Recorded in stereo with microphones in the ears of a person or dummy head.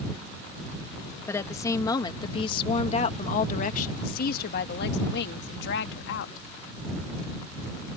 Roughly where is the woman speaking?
Centre.